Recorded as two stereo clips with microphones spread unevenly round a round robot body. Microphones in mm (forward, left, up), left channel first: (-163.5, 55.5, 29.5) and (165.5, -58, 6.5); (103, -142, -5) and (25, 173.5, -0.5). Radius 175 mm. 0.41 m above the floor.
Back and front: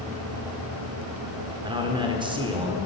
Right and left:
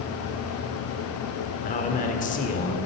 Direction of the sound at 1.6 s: 65° right.